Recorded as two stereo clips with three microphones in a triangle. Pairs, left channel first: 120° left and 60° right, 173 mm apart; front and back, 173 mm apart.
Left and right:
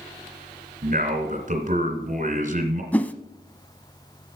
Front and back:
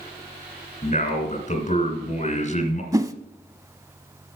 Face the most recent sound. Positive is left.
turn(degrees=180)